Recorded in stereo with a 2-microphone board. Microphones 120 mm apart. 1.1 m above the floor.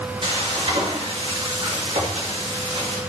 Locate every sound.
0.2 s frying: 50° right (ahead or behind), 2 m